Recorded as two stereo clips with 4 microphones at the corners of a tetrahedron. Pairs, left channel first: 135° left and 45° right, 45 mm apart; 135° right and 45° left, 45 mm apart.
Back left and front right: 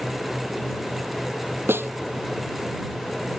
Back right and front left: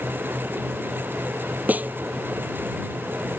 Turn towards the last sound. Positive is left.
turn(degrees=-10)